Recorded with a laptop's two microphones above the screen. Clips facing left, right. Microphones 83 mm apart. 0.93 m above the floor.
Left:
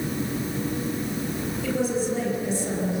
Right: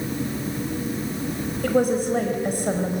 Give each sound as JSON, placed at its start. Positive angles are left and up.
{"t": 1.6, "sound": "a woman speaking", "side_deg": -55, "distance_m": 4.5}